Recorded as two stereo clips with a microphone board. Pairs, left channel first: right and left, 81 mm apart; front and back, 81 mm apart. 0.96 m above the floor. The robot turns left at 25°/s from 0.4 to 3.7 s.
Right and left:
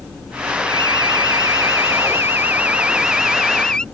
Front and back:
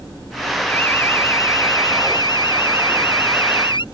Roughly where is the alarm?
Left.